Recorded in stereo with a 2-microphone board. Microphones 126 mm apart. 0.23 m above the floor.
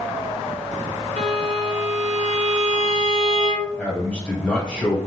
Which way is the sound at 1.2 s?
70° right (ahead or behind).